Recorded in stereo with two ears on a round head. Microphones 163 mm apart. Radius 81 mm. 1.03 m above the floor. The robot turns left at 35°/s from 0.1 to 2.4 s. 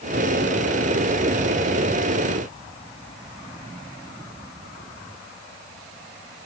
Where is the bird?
No bird in this recording.